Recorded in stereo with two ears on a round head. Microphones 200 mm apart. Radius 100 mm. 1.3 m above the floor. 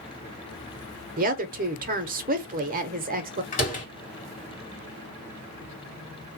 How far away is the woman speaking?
About 0.6 m.